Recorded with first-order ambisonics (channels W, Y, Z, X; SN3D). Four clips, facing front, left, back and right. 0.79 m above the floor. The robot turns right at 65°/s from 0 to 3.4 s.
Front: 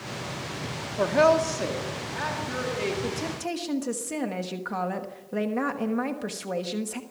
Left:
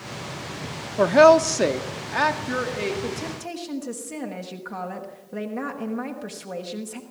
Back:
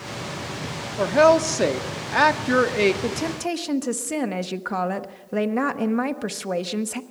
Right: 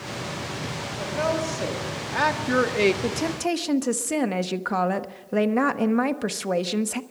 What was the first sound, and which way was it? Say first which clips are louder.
A woman speaking: left 13 dB, back 4 dB; 95° left.